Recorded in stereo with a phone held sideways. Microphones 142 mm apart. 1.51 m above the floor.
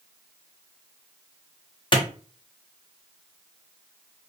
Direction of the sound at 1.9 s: 35° left (ahead or behind).